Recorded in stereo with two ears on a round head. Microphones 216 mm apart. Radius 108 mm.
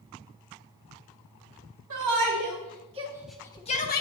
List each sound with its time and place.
1.9 s a shout: 60° right (ahead or behind), 2 m; by 4.0 s 45° left (ahead or behind), 1.3 m